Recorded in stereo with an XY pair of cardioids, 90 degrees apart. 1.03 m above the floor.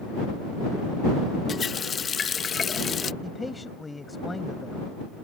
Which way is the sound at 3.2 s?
20° left.